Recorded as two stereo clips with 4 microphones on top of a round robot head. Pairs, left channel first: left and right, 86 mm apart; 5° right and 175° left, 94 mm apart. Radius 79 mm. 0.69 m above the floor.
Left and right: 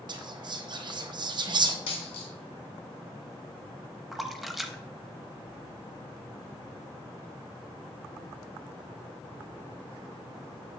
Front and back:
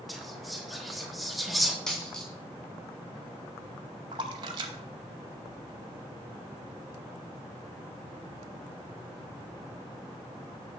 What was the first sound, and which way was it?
Whispering, 95° right.